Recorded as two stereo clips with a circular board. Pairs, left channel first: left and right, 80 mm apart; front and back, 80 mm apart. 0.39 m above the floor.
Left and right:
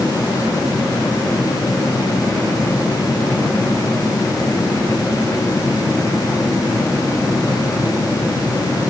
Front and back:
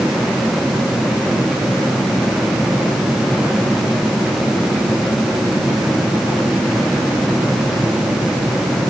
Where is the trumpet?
No trumpet in this recording.